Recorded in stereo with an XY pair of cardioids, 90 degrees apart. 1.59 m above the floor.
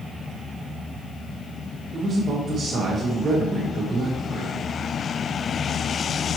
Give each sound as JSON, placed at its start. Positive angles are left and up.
{"t": 1.9, "sound": "a man speaking", "azimuth_deg": -55, "distance_m": 1.4}